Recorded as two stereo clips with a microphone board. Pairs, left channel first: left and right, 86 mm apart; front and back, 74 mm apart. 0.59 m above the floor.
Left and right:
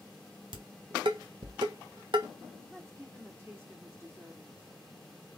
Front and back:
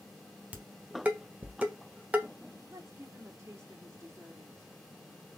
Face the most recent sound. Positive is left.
turn(degrees=-145)